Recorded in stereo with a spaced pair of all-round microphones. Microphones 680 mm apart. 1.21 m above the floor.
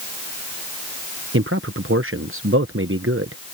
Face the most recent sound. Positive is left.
turn(degrees=-20)  # may be behind; listen again after turning